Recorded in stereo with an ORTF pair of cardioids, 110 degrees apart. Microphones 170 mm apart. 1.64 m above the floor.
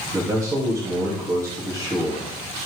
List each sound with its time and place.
0.1 s a man speaking: 20° right, 3 m